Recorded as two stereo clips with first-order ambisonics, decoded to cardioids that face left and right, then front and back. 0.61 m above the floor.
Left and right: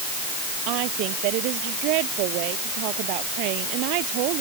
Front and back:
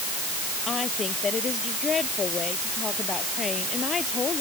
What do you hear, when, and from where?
0.7 s a woman speaking: 70° right